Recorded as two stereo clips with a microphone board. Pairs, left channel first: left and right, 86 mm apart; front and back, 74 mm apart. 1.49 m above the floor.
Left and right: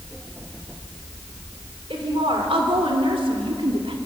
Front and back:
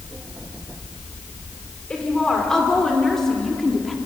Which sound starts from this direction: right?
A woman speaking, at 1.9 s.